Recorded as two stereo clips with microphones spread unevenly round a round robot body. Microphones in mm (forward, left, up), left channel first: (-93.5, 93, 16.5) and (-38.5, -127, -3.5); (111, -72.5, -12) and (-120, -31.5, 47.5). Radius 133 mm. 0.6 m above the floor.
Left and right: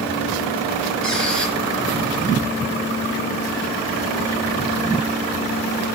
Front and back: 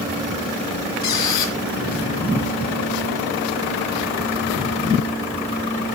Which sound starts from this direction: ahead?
A squeak, at 1.0 s.